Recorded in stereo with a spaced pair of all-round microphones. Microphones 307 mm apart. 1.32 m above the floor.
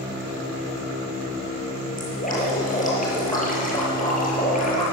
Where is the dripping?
25° left (ahead or behind), 7.5 m.